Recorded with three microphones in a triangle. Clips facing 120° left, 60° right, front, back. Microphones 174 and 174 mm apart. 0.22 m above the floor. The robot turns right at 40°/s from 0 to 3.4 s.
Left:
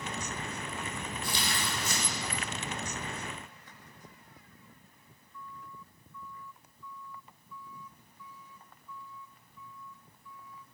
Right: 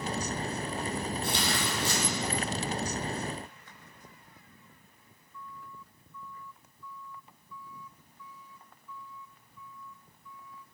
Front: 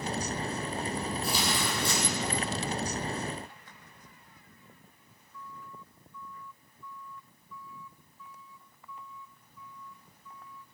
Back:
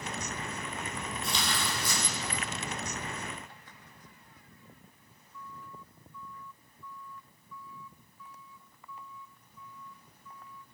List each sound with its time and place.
1.2 s tearing paper: 90° right, 9.5 m; by 2.0 s 60° right, 9.5 m